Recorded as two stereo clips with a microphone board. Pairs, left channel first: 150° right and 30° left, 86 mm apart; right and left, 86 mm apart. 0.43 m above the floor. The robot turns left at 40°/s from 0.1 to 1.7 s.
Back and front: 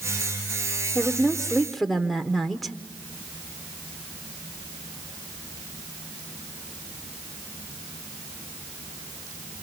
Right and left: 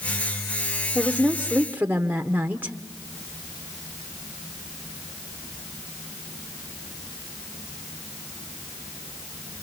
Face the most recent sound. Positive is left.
turn(degrees=120)